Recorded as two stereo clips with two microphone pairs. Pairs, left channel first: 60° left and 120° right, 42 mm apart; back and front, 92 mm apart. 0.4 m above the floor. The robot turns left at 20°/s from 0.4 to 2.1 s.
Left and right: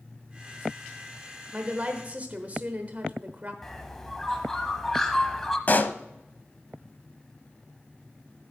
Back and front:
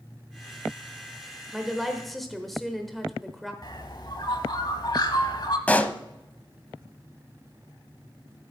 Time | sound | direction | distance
1.5 | a woman speaking | 85° right | 1.0 m
3.6 | a bird | 140° left | 1.0 m
5.7 | a pop | 105° left | 0.5 m